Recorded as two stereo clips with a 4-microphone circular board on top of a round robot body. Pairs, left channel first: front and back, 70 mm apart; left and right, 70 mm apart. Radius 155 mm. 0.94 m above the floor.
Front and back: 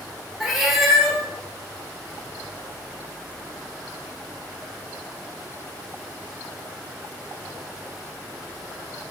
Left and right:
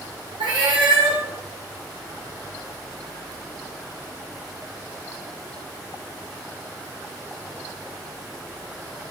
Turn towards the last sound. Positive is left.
turn(degrees=-95)